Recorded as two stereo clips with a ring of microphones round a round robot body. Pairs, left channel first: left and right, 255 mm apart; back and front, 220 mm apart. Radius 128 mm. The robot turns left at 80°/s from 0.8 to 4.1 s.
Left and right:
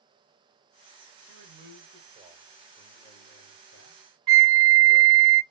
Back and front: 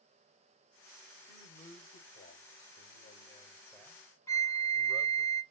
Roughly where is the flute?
Right.